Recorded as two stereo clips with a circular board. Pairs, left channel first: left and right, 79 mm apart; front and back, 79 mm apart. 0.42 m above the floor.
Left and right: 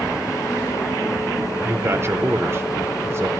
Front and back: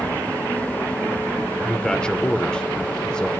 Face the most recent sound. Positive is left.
turn(degrees=-70)